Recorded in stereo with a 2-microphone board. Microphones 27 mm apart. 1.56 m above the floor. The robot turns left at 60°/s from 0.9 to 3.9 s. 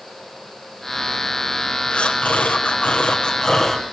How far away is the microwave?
I don't hear a microwave.